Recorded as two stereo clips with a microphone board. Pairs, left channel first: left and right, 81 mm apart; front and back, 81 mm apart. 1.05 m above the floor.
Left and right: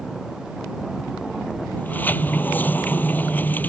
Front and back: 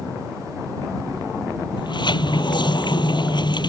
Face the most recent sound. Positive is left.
turn(degrees=20)